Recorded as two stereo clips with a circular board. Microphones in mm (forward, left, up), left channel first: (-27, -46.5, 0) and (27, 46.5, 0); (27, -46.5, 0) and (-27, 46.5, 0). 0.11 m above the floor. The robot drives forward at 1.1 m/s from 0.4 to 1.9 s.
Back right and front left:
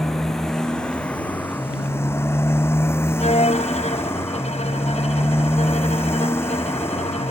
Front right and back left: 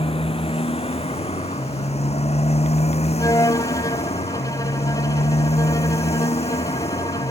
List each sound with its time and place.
0.0 s a motorcycle: 35° right; by 7.3 s 55° right
3.2 s a violin: 120° right